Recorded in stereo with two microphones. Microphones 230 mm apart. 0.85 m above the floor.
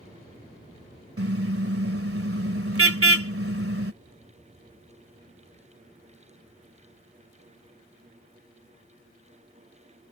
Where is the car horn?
70° right (ahead or behind).